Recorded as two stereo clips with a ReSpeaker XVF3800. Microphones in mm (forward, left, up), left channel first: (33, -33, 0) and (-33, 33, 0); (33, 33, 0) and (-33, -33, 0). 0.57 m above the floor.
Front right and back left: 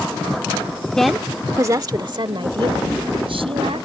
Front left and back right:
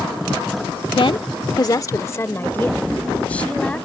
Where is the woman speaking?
35° left; by 3.9 s 125° left.